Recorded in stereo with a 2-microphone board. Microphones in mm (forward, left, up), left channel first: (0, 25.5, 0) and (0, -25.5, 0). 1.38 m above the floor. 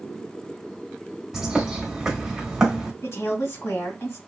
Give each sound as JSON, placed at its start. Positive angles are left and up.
{"t": 1.3, "sound": "a bird", "side_deg": -10, "distance_m": 1.0}
{"t": 3.0, "sound": "a woman speaking", "side_deg": 60, "distance_m": 1.9}